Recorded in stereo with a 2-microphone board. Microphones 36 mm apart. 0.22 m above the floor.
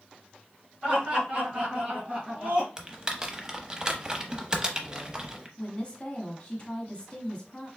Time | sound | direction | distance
0.8 | laughter | 35° right (ahead or behind) | 3 m
2.8 | typing on a keyboard | 20° right (ahead or behind) | 0.7 m
5.6 | a woman speaking | 35° left (ahead or behind) | 1.3 m